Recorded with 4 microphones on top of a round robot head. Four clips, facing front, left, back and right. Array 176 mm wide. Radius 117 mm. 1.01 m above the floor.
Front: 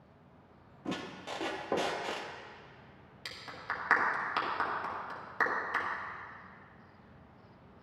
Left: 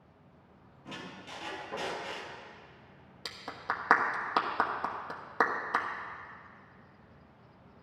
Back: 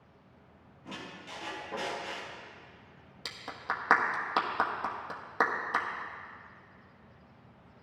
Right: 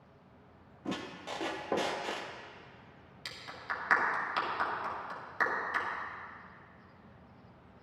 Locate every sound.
0.8 s a squeak: 50° right, 0.7 m
3.2 s a clap: 125° left, 1.3 m